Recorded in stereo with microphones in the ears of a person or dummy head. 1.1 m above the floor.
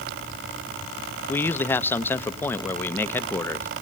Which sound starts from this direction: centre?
A man speaking, at 1.3 s.